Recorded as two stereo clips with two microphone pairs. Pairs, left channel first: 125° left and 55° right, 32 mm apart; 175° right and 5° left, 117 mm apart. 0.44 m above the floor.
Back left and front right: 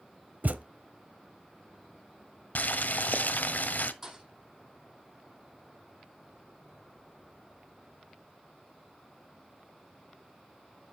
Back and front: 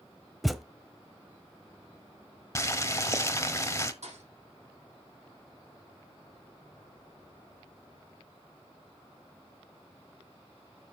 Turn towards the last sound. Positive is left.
turn(degrees=15)